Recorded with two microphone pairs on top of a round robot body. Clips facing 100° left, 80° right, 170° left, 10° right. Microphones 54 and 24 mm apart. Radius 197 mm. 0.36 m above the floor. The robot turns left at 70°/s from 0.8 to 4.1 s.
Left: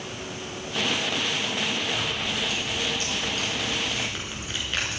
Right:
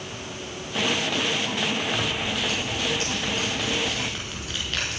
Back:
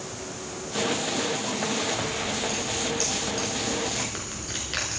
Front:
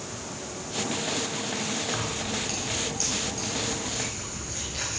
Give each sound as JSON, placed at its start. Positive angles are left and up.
{"t": 1.9, "sound": "keys jangling", "azimuth_deg": -25, "distance_m": 6.0}